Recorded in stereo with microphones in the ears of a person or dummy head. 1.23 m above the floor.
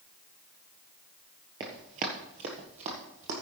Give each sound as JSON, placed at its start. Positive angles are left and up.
{"t": 1.6, "sound": "running footsteps", "side_deg": -15, "distance_m": 1.2}